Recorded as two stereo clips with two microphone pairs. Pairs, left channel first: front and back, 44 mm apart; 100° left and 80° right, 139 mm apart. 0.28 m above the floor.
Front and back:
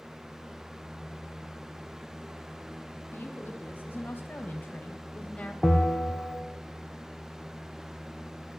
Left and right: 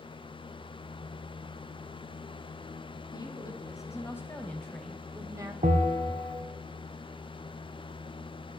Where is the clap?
No clap in this recording.